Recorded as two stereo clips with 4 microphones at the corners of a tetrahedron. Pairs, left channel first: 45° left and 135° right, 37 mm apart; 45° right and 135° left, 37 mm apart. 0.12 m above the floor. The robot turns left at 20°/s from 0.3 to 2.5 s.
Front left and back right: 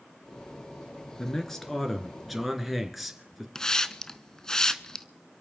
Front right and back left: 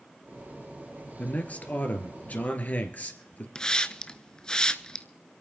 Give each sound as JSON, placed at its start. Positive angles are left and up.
{"t": 1.2, "sound": "a man speaking", "azimuth_deg": -25, "distance_m": 2.0}
{"t": 3.5, "sound": "a hiss", "azimuth_deg": -10, "distance_m": 0.7}